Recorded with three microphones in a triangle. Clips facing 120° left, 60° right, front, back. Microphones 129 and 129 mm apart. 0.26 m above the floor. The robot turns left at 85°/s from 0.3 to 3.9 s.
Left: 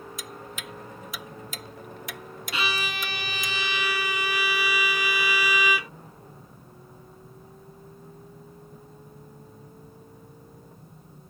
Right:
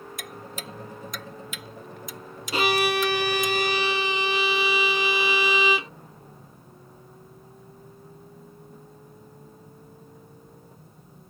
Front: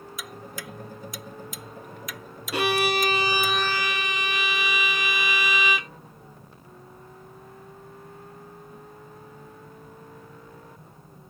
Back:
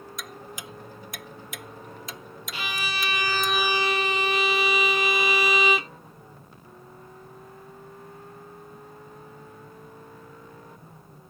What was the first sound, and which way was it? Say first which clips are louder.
Ticking: right 1 dB, front 3 dB; 85° right.